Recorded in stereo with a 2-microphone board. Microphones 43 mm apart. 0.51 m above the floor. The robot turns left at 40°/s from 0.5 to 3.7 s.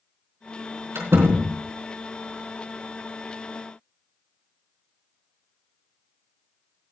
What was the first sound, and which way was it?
A door slam, 85° right.